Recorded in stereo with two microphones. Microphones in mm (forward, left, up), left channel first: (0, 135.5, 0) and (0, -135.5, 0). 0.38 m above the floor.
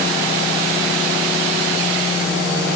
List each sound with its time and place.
Only background noise.